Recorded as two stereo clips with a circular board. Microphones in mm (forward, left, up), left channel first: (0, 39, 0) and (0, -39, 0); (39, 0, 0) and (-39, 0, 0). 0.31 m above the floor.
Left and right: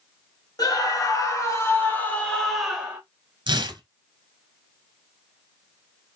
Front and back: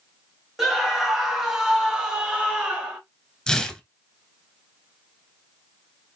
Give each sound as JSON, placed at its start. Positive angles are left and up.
{"t": 0.6, "sound": "a scream", "azimuth_deg": 95, "distance_m": 1.5}
{"t": 3.5, "sound": "tearing paper", "azimuth_deg": -80, "distance_m": 0.8}